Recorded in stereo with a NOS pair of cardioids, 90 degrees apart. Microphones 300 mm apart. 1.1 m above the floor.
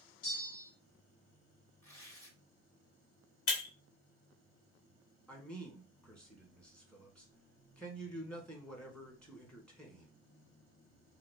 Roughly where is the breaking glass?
Ahead left.